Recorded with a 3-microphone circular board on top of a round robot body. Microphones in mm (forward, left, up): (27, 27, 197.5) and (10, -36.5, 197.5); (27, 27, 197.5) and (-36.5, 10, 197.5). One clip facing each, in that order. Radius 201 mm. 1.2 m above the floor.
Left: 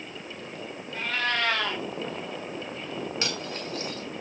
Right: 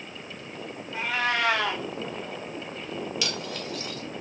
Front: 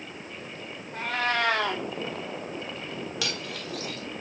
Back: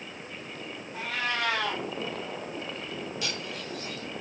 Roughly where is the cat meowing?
Ahead right.